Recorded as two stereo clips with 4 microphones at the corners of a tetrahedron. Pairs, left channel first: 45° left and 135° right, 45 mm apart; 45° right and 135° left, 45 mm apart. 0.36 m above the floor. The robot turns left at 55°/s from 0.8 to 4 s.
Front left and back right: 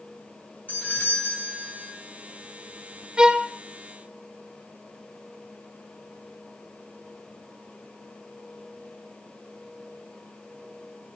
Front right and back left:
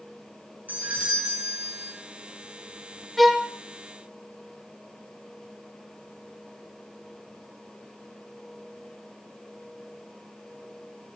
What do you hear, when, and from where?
0.7 s a doorbell: 100° left, 3 m; by 1.9 s 35° left, 3 m
3.2 s a violin: 130° right, 0.7 m; by 3.5 s 150° right, 0.7 m